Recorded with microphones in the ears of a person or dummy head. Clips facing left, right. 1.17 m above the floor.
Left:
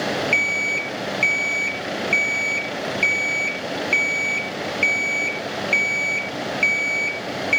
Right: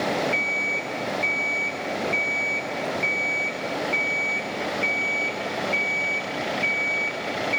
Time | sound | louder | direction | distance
0.3 | an alarm clock | left 1 dB | 45° left (ahead or behind) | 0.6 m